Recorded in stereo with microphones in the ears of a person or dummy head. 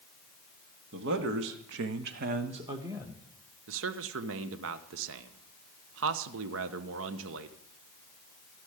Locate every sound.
0.9 s a man speaking: 70° right (ahead or behind), 2 m; by 3.3 s centre (ahead or behind), 1.5 m
3.7 s a man speaking: 80° right, 1.1 m